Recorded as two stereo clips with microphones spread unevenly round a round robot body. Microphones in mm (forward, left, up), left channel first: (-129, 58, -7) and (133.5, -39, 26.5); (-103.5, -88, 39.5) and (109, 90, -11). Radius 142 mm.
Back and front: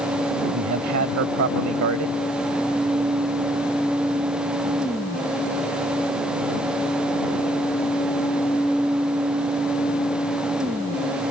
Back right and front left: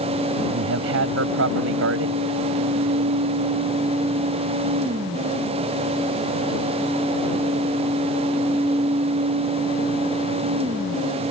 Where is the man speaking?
15° left.